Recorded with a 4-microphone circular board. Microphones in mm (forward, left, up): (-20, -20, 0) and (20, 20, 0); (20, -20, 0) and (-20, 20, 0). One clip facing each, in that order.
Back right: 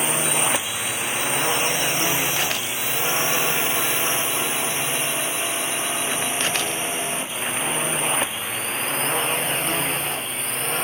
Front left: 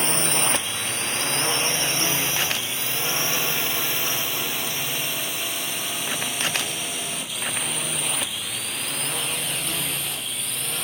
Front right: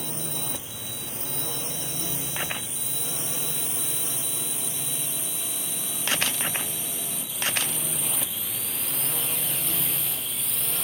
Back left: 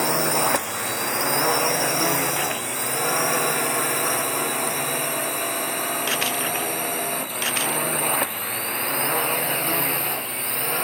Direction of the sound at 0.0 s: 145° left.